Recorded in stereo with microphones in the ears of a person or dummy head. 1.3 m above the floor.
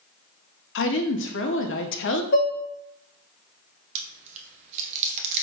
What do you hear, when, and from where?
0.8 s a woman speaking: 60° left (ahead or behind), 0.5 m
2.3 s dishes clattering: 50° left (ahead or behind), 0.6 m
4.0 s chewing: 40° right (ahead or behind), 0.7 m